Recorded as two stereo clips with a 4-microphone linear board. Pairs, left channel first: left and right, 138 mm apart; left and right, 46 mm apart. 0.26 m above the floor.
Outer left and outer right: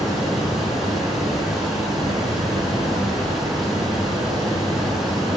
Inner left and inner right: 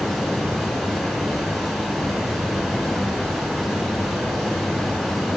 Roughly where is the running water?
Centre.